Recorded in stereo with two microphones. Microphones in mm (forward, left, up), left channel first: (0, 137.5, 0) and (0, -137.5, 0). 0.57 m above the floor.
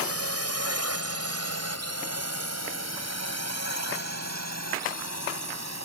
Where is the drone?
60° right (ahead or behind); by 5.8 s 70° right (ahead or behind).